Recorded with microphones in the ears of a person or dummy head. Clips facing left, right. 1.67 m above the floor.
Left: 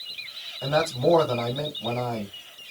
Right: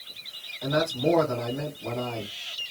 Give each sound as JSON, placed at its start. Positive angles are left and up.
{"t": 0.6, "sound": "a man speaking", "side_deg": 60, "distance_m": 1.7}